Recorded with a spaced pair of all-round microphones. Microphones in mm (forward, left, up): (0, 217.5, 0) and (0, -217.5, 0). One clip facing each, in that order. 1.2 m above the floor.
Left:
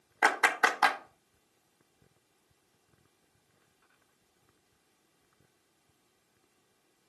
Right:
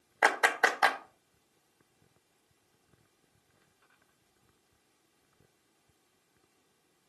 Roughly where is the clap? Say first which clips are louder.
Right 1 dB; left.